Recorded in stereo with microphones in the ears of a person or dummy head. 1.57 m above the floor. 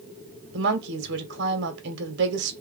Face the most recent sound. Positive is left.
turn(degrees=-65)  # may be behind; listen again after turning